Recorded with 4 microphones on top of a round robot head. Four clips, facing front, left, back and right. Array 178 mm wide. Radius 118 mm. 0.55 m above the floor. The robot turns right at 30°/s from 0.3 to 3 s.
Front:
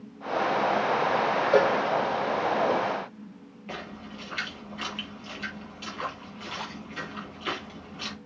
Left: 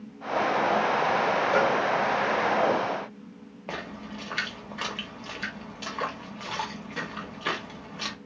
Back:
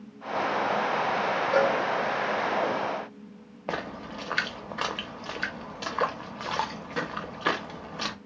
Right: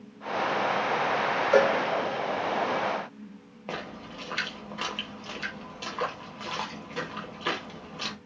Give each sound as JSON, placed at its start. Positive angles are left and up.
{"t": 1.5, "sound": "a cowbell", "azimuth_deg": -45, "distance_m": 0.7}
{"t": 3.7, "sound": "a splash", "azimuth_deg": -175, "distance_m": 0.6}